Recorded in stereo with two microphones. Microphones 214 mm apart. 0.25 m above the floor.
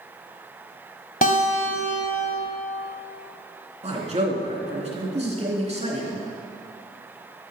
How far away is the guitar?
About 1.6 m.